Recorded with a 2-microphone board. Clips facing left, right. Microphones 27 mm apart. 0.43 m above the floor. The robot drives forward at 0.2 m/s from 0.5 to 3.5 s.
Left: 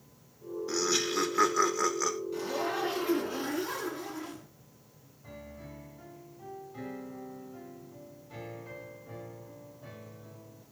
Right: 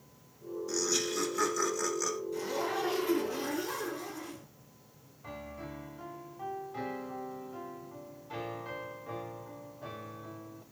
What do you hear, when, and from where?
0.7 s laughter: 25° left (ahead or behind), 1.0 m
2.3 s a zipper: 20° left (ahead or behind), 4.5 m
5.2 s a piano: 35° right (ahead or behind), 1.0 m